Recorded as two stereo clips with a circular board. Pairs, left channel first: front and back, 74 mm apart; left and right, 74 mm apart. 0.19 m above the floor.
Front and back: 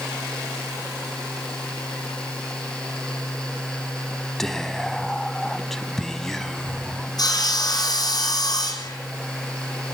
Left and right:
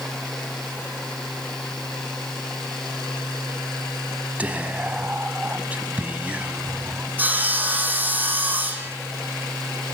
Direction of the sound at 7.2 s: 25° right.